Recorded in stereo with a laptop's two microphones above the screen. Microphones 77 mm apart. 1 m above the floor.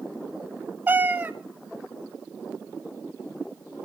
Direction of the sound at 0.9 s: 25° right (ahead or behind).